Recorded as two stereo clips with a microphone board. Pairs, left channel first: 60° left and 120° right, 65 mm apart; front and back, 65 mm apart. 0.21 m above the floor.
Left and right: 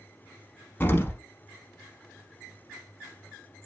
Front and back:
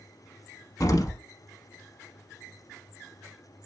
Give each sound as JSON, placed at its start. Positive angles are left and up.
{"t": 0.8, "sound": "an explosion", "azimuth_deg": 10, "distance_m": 0.7}